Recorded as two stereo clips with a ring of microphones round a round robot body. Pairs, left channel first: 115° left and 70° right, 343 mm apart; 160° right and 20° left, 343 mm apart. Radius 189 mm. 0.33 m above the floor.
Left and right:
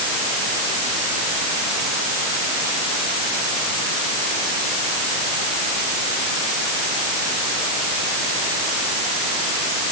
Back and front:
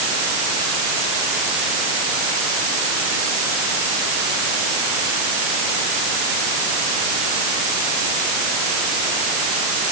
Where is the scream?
No scream in this recording.